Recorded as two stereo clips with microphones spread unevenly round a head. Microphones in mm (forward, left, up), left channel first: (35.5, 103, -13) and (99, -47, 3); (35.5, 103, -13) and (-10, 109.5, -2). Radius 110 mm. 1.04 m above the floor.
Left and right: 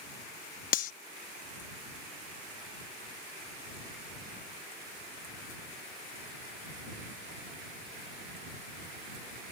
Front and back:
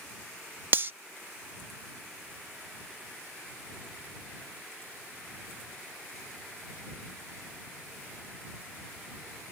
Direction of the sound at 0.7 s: 155° left.